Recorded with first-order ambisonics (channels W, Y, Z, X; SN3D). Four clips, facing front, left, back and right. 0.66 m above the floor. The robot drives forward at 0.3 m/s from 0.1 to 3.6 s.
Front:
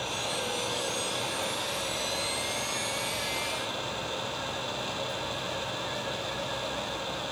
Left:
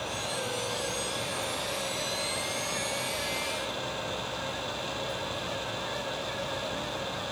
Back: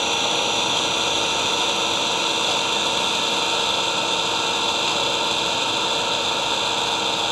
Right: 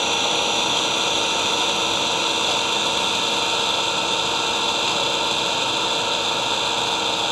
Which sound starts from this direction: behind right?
An engine running, at 0.0 s.